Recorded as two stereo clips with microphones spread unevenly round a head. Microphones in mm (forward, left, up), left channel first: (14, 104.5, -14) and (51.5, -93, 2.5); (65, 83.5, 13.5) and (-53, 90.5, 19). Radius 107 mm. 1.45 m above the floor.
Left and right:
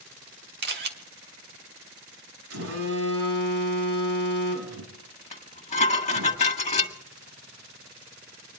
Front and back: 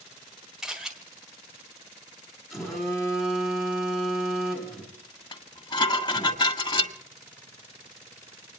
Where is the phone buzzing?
85° right, 4 m.